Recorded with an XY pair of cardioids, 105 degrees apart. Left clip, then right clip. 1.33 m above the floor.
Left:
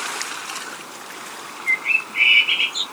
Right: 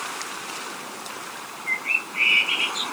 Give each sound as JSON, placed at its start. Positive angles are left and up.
{"t": 1.7, "sound": "a bird", "azimuth_deg": 55, "distance_m": 1.3}